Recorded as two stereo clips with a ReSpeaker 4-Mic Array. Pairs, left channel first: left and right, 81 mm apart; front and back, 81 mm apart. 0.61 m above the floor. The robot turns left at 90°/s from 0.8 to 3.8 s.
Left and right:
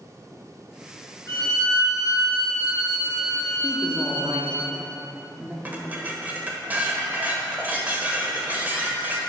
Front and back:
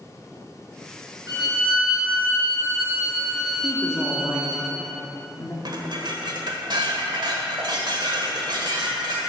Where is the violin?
130° left, 3 m; by 4.6 s 100° right, 3 m.